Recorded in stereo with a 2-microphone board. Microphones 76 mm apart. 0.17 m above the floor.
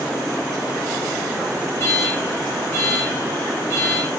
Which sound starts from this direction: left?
An alarm, at 1.8 s.